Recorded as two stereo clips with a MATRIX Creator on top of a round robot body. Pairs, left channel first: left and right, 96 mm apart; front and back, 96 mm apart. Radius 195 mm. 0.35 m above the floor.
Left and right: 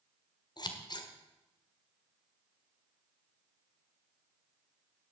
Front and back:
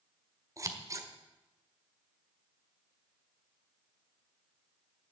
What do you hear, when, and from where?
0.6 s scissors: 125° left, 1.7 m